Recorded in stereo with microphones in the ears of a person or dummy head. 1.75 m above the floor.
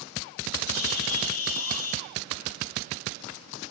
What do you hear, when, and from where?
0.7 s a bird: 85° left, 1.3 m